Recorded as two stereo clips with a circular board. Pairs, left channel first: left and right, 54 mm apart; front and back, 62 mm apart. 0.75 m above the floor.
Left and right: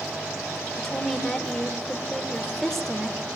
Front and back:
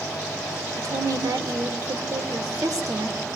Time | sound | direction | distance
0.8 | a woman speaking | 170° left | 2.5 m